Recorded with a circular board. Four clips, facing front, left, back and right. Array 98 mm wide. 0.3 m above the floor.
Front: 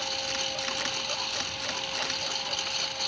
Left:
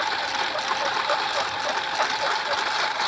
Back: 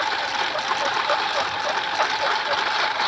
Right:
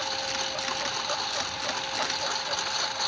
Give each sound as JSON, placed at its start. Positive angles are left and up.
{"t": 0.0, "sound": "a lawn mower", "azimuth_deg": 155}